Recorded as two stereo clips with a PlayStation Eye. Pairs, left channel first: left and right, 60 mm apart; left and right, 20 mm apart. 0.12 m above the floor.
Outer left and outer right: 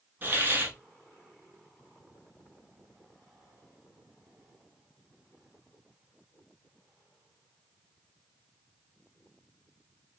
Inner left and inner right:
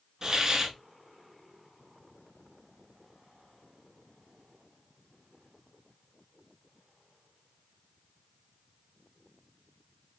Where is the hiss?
35° right (ahead or behind), 0.8 m.